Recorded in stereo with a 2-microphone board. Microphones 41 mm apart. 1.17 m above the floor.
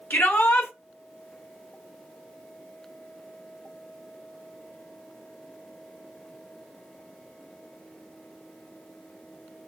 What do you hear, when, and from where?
0.1 s a shout: 75° left (ahead or behind), 1.2 m